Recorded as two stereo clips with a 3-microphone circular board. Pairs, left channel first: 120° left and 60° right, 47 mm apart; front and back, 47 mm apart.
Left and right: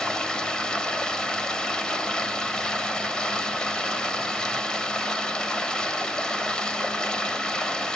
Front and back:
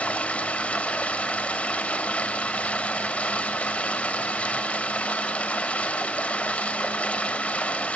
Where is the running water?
50° left, 1.1 m.